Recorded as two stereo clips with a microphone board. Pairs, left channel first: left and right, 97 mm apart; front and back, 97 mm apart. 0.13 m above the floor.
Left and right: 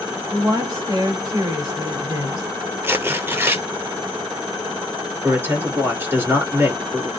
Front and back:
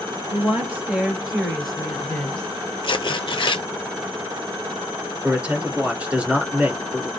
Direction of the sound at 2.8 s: 25° right.